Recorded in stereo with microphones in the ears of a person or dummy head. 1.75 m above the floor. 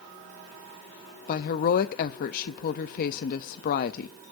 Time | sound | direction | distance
1.3 | a woman speaking | 55° left (ahead or behind) | 0.6 m